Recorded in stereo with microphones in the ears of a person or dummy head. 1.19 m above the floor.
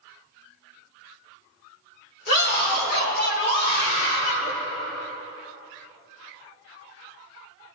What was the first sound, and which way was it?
A scream, 70° left (ahead or behind).